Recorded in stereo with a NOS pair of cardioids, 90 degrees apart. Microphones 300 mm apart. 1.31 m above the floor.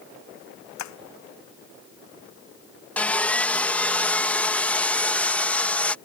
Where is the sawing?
5° left.